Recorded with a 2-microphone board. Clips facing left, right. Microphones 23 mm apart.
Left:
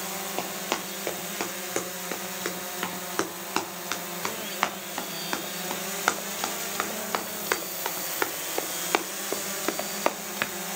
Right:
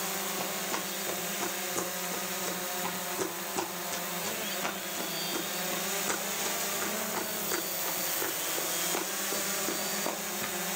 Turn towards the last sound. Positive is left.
turn(degrees=80)